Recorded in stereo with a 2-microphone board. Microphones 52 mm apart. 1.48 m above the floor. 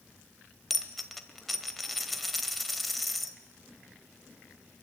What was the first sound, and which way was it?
A dropped coin, centre (ahead or behind).